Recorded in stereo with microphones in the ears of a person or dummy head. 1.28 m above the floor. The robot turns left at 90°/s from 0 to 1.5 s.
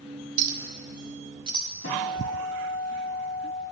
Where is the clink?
45° right (ahead or behind), 0.6 m; by 1.7 s 20° right (ahead or behind), 0.6 m.